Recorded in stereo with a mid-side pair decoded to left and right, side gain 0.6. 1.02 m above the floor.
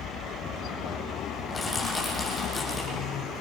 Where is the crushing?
20° left, 9 m.